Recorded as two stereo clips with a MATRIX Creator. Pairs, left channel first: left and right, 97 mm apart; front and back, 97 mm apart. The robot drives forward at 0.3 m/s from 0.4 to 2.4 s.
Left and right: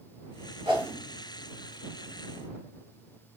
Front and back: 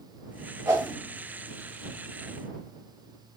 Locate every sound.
0.7 s a whoosh: 120° right, 3 m